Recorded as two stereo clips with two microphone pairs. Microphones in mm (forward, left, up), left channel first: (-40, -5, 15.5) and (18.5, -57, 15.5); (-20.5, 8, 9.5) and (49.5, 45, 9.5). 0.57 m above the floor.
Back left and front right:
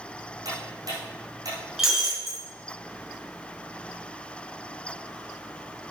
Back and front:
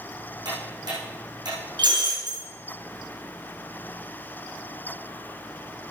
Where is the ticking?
Straight ahead, 5.5 m.